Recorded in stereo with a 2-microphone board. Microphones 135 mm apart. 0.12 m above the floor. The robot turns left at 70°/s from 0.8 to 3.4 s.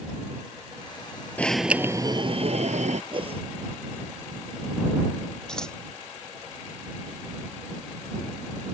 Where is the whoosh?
35° right (ahead or behind); by 3.4 s 50° right (ahead or behind).